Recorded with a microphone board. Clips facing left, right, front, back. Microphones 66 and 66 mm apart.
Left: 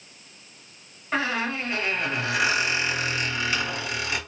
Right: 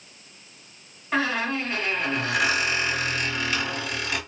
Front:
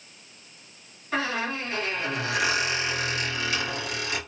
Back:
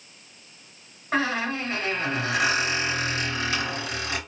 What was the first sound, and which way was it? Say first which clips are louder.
A squeak: right 1 dB, back 3 dB; straight behind.